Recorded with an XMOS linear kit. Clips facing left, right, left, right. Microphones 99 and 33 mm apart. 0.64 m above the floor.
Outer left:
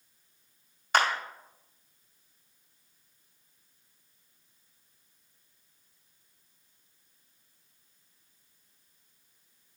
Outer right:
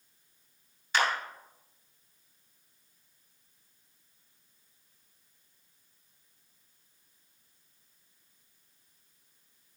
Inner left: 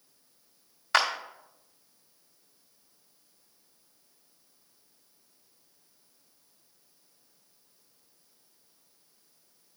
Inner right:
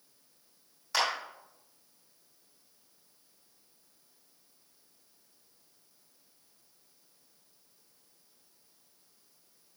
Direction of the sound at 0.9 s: 55° left (ahead or behind).